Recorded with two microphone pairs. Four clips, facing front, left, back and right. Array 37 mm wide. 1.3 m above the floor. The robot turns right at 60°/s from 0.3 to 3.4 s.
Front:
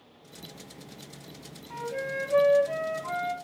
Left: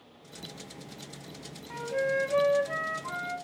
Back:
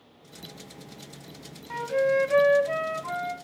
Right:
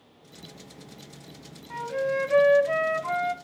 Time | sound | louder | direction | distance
1.7 | a flute | right 2 dB, back 9 dB | straight behind | 1.4 m